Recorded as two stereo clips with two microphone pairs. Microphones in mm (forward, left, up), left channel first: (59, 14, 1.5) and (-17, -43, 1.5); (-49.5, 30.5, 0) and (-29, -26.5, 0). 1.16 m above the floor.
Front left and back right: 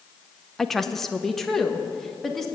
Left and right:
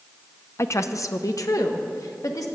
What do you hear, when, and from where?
0.6 s a woman speaking: 125° left, 0.7 m